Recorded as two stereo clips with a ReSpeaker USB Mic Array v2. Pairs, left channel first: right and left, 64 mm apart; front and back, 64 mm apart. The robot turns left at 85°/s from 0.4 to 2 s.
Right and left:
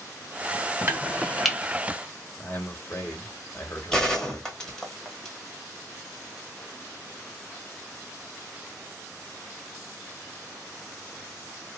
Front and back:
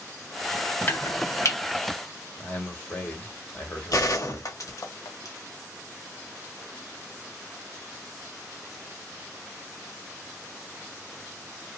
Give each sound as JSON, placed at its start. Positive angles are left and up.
{"t": 0.9, "sound": "chopping", "azimuth_deg": 45, "distance_m": 1.1}
{"t": 2.4, "sound": "a man speaking", "azimuth_deg": -50, "distance_m": 2.0}
{"t": 3.9, "sound": "a gunshot", "azimuth_deg": -10, "distance_m": 1.5}